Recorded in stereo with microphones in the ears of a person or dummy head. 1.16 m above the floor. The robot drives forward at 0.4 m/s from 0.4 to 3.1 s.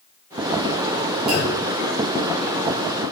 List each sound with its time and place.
1.3 s a clunk: 55° right (ahead or behind), 3 m